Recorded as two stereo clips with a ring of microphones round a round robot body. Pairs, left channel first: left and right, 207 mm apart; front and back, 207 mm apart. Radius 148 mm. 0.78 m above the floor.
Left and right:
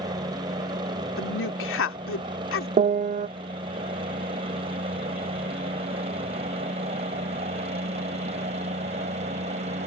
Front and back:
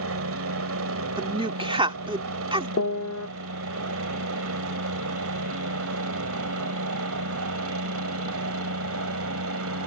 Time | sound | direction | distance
0.0 | a helicopter | 165° right | ?
1.2 | a woman speaking | 115° left | ?
2.8 | a piano | 35° right | ?